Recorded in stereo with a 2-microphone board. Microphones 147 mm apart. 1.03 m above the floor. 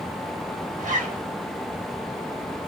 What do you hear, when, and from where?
0.8 s a zipper: 60° right (ahead or behind), 1.1 m